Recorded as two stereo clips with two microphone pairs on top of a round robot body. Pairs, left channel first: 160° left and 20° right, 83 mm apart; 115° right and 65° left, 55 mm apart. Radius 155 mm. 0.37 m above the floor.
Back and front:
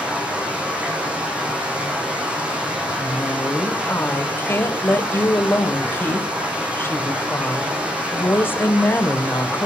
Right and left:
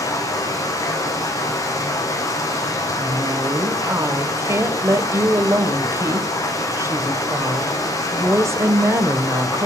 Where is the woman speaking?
100° left, 2 m.